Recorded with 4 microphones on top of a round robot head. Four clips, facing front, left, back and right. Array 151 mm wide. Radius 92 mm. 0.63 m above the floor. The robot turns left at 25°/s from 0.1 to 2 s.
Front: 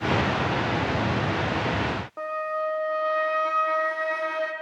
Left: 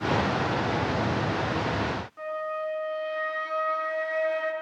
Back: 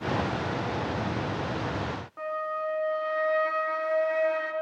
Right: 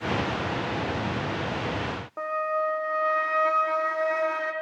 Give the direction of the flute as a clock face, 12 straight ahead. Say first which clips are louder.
Right 9 dB, front 1 dB; 2 o'clock.